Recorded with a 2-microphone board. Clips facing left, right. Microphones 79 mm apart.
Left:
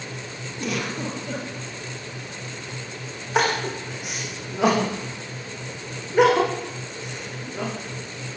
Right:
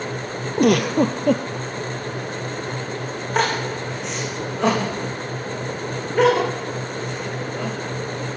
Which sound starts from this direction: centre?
Crying, at 3.4 s.